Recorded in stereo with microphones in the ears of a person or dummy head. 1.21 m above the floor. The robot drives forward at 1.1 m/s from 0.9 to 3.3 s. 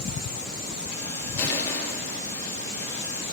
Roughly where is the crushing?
Centre.